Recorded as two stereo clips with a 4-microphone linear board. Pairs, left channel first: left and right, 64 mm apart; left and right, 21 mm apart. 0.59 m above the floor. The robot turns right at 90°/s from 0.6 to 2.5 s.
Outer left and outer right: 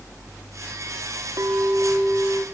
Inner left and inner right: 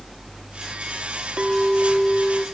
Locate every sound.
1.4 s a clink: 65° right, 0.8 m; by 2.5 s 30° left, 0.8 m